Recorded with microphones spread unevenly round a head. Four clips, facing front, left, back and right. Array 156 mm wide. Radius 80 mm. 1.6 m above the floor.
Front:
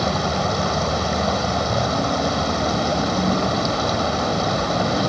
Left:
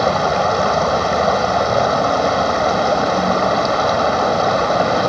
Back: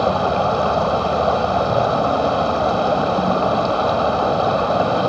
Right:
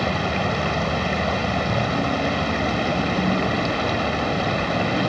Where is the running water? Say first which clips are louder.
Left 8 dB, back 5 dB; 125° left.